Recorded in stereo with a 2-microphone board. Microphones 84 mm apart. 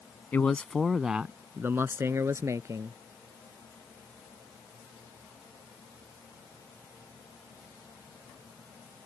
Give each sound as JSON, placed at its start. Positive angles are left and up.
{"t": 0.3, "sound": "a man speaking", "side_deg": 25}